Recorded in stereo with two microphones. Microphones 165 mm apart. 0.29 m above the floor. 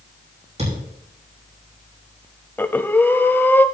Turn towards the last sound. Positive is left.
turn(degrees=10)  # may be behind; listen again after turning